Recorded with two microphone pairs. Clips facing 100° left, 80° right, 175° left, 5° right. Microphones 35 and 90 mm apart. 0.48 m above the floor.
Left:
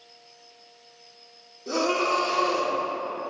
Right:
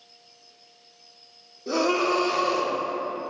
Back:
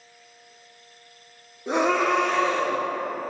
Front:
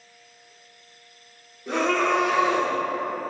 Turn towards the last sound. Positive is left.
turn(degrees=15)